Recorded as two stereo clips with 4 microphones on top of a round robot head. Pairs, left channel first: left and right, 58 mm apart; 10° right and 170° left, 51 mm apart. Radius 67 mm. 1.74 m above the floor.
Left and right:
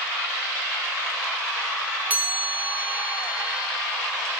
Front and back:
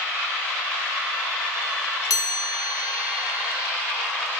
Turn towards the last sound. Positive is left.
turn(degrees=-20)